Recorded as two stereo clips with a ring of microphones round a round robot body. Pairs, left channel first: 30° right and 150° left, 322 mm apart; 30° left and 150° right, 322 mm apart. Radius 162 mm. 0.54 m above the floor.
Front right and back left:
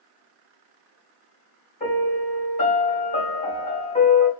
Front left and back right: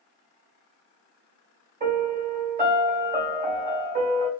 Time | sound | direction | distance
1.8 | a piano | 95° right | 1.9 m